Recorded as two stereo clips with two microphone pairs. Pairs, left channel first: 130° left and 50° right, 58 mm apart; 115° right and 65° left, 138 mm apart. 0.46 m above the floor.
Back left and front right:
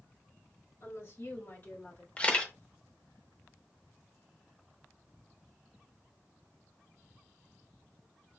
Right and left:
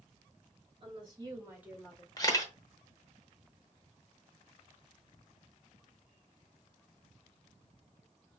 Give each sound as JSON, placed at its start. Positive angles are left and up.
{"t": 0.8, "sound": "a woman speaking", "azimuth_deg": 110, "distance_m": 2.5}
{"t": 2.2, "sound": "a camera shutter", "azimuth_deg": -170, "distance_m": 0.7}